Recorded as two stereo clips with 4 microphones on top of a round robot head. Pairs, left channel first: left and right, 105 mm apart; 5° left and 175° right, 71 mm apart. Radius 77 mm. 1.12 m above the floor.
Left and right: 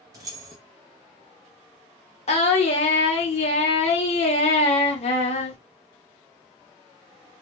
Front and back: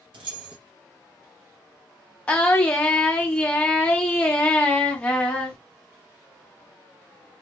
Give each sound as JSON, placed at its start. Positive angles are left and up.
{"t": 0.1, "sound": "keys jangling", "azimuth_deg": -155, "distance_m": 0.5}
{"t": 2.3, "sound": "singing", "azimuth_deg": 75, "distance_m": 0.6}